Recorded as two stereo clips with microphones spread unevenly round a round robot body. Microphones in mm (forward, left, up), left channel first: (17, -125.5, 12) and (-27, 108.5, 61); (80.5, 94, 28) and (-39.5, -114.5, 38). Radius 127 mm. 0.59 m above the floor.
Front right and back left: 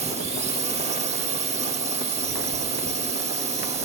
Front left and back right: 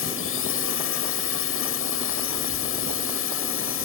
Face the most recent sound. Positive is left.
turn(degrees=35)